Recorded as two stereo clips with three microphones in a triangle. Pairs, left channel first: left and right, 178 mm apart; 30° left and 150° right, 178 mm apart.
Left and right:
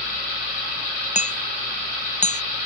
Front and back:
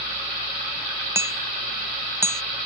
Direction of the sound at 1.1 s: 135° left.